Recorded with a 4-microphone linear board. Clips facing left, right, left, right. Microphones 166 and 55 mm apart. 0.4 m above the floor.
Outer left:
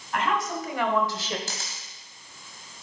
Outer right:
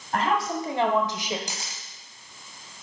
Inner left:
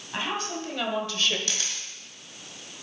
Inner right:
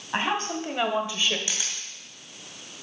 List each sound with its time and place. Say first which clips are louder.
0.1 s a woman speaking: outer right 2 dB, inner right 4 dB; 40° right (ahead or behind), 2.5 m; by 1.4 s 10° right (ahead or behind), 1.4 m
1.5 s a camera shutter: even, even; 15° right (ahead or behind), 2.5 m